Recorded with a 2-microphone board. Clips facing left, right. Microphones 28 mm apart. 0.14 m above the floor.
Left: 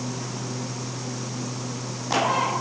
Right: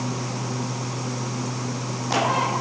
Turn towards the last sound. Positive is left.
No sound to turn to.